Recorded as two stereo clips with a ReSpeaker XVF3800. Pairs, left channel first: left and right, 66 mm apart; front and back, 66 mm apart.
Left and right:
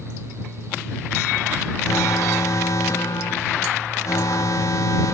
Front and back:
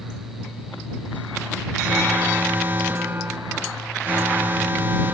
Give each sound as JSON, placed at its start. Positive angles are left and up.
{"t": 1.9, "sound": "an alarm", "azimuth_deg": 125}